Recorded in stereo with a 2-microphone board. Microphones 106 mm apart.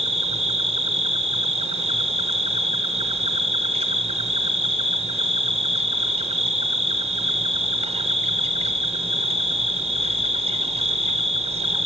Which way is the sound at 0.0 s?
75° right (ahead or behind).